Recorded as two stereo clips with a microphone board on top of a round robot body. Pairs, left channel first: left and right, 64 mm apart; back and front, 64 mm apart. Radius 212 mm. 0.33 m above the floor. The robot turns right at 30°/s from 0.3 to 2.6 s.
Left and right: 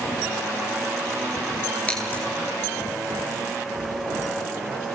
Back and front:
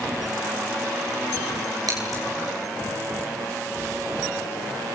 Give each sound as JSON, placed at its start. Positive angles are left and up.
{"t": 1.9, "sound": "scissors", "azimuth_deg": 20, "distance_m": 10.0}